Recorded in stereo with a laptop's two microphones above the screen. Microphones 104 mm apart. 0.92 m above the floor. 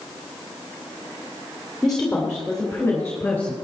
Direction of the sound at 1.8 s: Centre (ahead or behind).